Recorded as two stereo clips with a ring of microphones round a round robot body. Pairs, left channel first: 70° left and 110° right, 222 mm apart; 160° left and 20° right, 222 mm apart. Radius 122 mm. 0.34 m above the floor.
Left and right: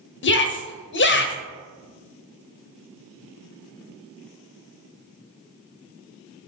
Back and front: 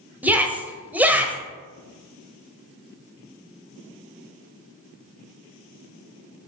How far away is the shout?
About 1.4 m.